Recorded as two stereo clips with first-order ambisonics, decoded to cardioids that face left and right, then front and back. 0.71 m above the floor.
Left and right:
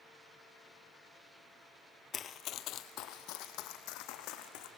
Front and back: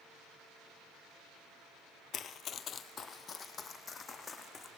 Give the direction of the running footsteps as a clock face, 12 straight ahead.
11 o'clock.